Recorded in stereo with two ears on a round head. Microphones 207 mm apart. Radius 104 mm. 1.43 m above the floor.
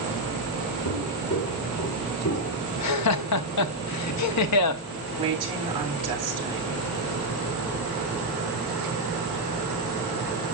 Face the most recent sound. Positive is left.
turn(degrees=-25)  # may be behind; listen again after turning